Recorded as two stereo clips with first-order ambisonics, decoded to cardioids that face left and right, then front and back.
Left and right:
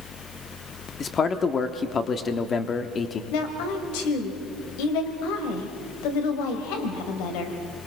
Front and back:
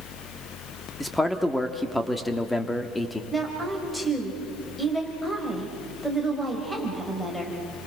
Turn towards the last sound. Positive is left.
turn(degrees=85)